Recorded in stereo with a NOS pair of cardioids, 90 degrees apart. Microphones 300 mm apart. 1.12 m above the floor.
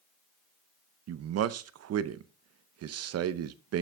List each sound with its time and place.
1.1 s a man speaking: 60° right, 0.7 m